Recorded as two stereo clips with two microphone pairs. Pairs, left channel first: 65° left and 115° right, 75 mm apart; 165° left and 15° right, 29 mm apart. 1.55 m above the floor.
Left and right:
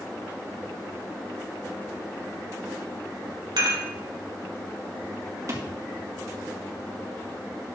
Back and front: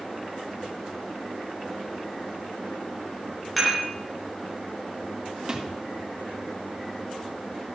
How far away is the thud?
About 1.9 m.